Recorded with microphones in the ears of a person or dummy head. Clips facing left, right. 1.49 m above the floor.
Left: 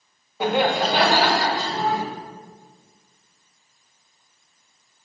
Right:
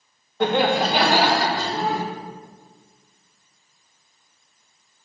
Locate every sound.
0.4 s laughter: 5° left (ahead or behind), 1.0 m; by 2.0 s 25° right (ahead or behind), 1.7 m